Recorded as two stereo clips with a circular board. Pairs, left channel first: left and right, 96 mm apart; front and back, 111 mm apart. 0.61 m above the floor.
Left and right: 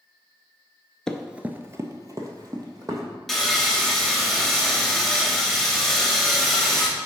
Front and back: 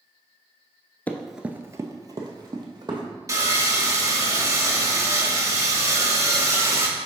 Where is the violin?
I don't hear a violin.